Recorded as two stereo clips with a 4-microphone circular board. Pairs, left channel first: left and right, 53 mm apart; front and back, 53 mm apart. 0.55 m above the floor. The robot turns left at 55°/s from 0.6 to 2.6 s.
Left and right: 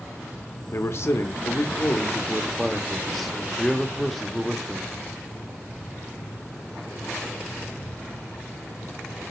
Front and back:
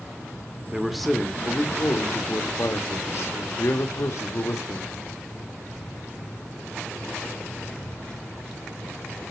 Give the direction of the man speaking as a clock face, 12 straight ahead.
9 o'clock.